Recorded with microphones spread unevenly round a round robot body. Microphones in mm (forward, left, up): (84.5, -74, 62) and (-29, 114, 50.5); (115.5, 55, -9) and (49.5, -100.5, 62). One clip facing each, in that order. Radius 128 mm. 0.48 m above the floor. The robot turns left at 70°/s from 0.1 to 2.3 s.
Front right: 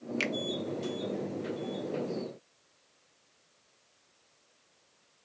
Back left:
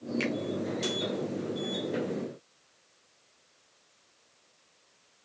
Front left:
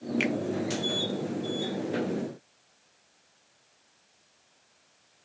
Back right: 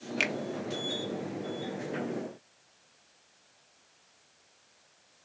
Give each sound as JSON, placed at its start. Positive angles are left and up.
{"t": 0.2, "sound": "a finger snap", "azimuth_deg": -65, "distance_m": 0.9}